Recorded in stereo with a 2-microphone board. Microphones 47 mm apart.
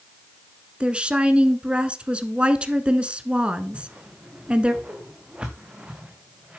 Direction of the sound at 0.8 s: 25° right (ahead or behind).